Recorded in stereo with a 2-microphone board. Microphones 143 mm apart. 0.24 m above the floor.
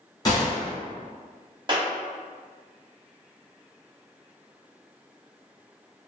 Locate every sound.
0.2 s a gunshot: 30° left (ahead or behind), 1.7 m
1.7 s a clap: 35° right (ahead or behind), 0.8 m